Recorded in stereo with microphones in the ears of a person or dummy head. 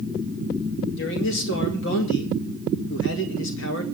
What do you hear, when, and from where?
1.0 s a man speaking: 65° left (ahead or behind), 1.8 m